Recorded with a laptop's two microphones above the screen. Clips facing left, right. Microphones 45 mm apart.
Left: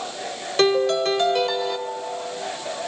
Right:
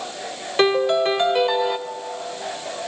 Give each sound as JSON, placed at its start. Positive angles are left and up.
{"t": 0.6, "sound": "a piano", "side_deg": -20, "distance_m": 0.7}